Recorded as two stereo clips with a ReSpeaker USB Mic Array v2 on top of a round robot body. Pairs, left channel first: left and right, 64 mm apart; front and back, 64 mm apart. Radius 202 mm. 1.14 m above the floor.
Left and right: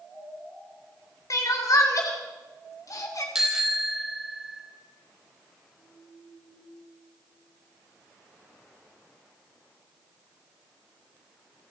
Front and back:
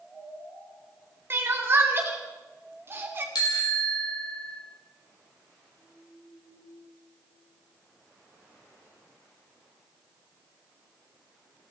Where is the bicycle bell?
10° right, 4.5 m.